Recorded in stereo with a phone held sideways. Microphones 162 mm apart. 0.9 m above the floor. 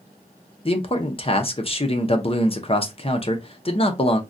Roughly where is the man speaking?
Left.